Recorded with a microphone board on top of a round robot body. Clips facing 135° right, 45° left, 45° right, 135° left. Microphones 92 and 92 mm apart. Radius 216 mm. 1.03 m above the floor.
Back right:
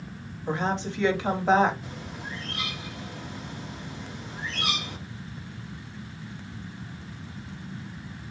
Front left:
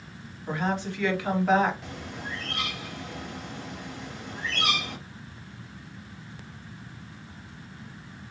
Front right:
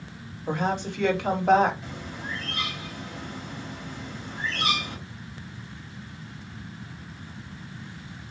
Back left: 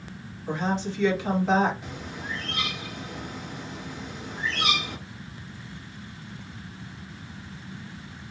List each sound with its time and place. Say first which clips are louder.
0.5 s a woman speaking: back right 1 dB, front right 1 dB; 70° right, 1.2 m
1.8 s a bird: front left 1 dB, even; 55° left, 1.0 m